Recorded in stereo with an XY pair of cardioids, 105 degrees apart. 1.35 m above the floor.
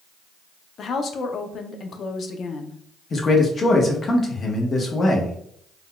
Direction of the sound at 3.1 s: 40° left.